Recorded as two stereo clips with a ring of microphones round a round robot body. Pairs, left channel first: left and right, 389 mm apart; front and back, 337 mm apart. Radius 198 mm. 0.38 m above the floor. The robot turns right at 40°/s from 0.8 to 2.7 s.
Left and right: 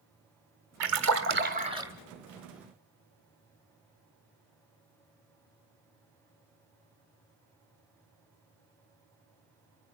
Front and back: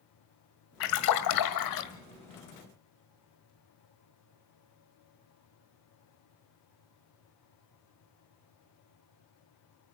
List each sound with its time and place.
0.8 s a splash: 50° right, 1.5 m; by 1.9 s 5° right, 1.5 m